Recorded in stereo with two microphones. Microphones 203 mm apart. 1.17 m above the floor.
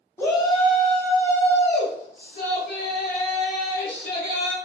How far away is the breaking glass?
I don't hear breaking glass.